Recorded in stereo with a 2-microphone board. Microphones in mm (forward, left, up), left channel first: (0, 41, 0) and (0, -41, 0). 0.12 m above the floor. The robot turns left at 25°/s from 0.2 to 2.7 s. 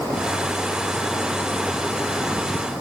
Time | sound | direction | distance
1.7 | a toilet flushing | 10° right (ahead or behind) | 8 m